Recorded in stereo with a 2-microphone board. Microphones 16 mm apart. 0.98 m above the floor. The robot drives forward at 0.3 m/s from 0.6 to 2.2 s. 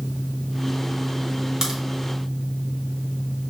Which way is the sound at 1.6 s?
40° right (ahead or behind).